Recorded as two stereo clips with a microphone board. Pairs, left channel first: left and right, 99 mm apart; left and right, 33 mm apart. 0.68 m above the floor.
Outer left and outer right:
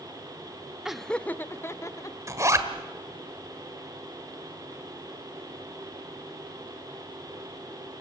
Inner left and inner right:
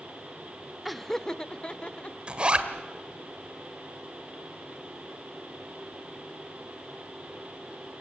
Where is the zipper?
30° right (ahead or behind), 1.7 m.